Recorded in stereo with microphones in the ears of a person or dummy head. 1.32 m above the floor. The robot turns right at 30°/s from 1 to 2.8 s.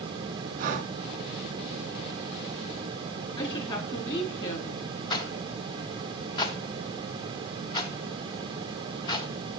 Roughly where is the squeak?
No squeak in this recording.